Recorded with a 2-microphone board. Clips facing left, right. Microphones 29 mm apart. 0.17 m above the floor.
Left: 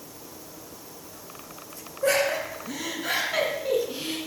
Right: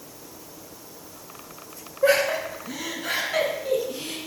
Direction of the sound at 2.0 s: 25° right (ahead or behind).